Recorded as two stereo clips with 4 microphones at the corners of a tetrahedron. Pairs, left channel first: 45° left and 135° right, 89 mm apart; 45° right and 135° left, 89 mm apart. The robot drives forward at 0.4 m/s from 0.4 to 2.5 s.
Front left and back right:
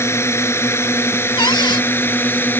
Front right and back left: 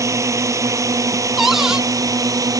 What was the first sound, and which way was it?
A drone, 95° left.